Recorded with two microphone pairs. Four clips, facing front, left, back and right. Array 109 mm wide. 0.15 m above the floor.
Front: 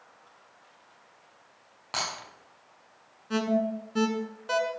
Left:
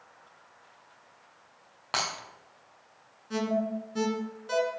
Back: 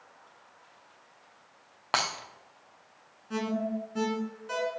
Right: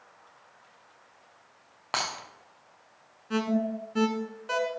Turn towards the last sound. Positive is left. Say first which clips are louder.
# right 1 dB, front 4 dB
turn(degrees=-35)